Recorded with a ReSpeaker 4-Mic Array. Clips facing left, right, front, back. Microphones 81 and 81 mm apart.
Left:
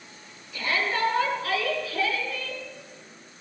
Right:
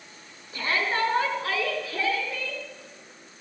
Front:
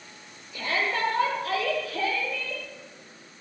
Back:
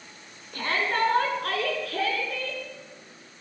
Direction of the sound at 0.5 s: 145° right.